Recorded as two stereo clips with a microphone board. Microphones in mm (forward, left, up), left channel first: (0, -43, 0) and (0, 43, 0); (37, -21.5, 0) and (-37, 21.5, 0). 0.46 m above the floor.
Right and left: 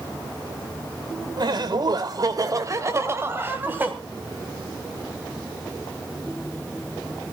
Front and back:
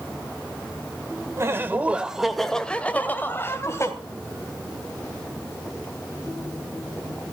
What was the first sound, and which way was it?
Laughter, 100° left.